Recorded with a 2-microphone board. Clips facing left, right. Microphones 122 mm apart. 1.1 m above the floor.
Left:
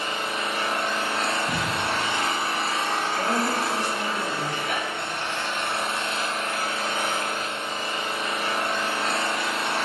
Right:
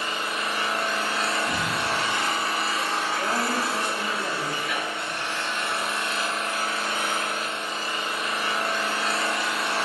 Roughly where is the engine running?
Left.